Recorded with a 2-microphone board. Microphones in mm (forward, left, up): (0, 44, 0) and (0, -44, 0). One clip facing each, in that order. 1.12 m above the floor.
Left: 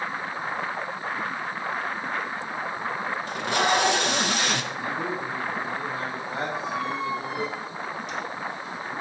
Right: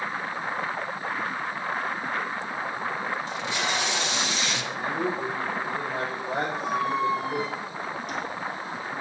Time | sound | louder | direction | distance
3.3 | tape being pulled | left 5 dB | 55° left (ahead or behind) | 1.0 m
4.7 | a man speaking | right 1 dB | 70° right (ahead or behind) | 6 m
6.5 | a squeak | right 2 dB | 45° right (ahead or behind) | 1.7 m